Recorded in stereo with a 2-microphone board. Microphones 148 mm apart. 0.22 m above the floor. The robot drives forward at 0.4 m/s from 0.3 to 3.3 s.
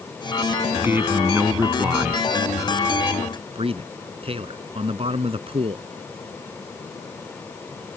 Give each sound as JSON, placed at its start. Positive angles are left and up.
{"t": 0.7, "sound": "a man speaking", "side_deg": -15}
{"t": 3.5, "sound": "a man speaking", "side_deg": -45}